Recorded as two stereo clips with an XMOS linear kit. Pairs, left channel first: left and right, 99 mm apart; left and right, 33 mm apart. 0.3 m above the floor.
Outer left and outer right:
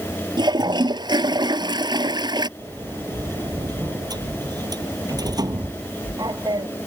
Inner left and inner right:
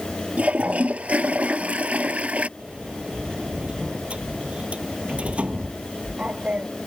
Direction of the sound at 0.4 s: 45° right (ahead or behind).